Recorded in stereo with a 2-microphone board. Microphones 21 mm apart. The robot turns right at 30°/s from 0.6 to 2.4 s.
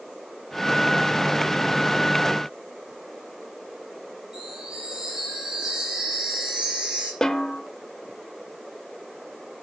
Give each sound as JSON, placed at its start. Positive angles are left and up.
{"t": 4.3, "sound": "a chime", "side_deg": -30, "distance_m": 5.5}
{"t": 7.2, "sound": "a snare drum", "side_deg": 25, "distance_m": 1.0}